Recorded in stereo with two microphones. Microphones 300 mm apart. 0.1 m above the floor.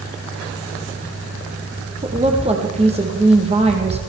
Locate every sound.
2.0 s a woman speaking: 20° right (ahead or behind), 4.5 m